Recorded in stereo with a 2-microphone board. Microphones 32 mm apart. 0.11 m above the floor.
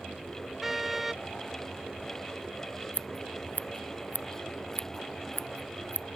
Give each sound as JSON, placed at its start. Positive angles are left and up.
{"t": 0.6, "sound": "a car horn", "side_deg": -5}
{"t": 2.9, "sound": "scissors", "side_deg": 80}